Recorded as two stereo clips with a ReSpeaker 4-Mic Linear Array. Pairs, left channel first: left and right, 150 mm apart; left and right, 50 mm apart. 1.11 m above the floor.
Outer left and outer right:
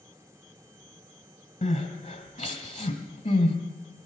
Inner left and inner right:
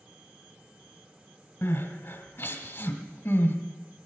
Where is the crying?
55° left (ahead or behind), 1.5 m.